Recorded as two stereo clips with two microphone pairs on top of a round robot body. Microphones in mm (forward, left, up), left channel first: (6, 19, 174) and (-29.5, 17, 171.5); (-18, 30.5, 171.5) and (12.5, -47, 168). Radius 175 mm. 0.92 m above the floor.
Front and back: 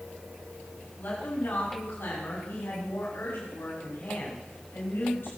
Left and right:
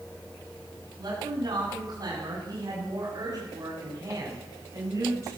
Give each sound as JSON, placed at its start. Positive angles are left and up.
{"t": 1.0, "sound": "a woman speaking", "azimuth_deg": -30, "distance_m": 9.0}